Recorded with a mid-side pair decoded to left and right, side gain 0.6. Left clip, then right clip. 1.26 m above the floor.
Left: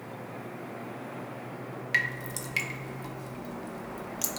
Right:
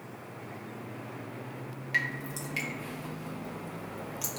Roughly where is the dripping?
Ahead left.